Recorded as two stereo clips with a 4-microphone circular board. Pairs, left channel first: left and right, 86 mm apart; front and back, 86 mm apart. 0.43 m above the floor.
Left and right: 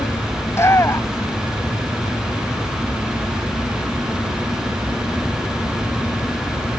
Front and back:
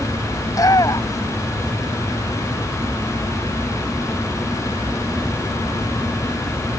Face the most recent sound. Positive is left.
turn(degrees=40)